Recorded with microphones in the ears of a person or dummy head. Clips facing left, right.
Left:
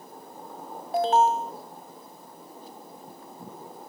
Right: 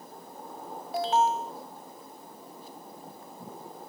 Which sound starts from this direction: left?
An alarm, at 0.9 s.